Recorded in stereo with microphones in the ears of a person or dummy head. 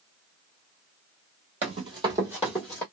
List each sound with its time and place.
1.6 s running footsteps: 30° right (ahead or behind), 1.5 m; by 2.8 s 10° left (ahead or behind), 1.2 m